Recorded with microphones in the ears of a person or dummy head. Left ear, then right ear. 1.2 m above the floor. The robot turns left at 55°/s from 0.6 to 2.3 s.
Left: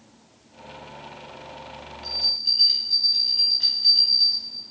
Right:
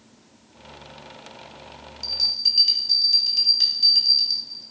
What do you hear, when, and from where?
2.0 s a bell: 75° right (ahead or behind), 2 m; by 4.7 s 90° right, 2 m